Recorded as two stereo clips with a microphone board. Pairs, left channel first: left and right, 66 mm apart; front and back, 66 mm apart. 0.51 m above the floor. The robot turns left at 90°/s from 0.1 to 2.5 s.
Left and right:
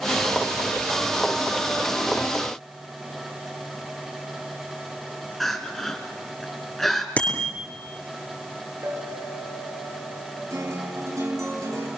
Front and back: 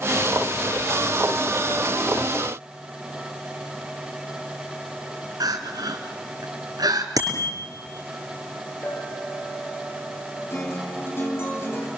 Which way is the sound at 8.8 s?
50° right.